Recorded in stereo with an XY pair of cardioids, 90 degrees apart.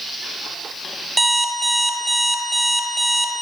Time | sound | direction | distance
1.2 | an alarm clock | 20° right | 1.9 m